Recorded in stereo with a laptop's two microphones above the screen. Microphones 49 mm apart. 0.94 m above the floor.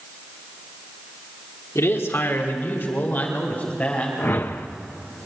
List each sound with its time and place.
1.8 s a man speaking: 75° left (ahead or behind), 2.5 m; by 4.1 s 30° left (ahead or behind), 4.5 m
4.2 s a whoosh: 45° left (ahead or behind), 0.9 m